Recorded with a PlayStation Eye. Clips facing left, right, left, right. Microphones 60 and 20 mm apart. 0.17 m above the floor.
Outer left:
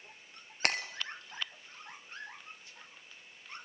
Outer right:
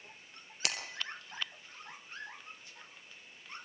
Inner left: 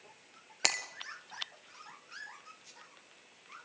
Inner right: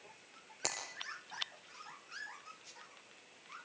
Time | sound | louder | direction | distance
0.6 | breaking glass | outer left 6 dB, inner left 9 dB | 50° left (ahead or behind) | 2 m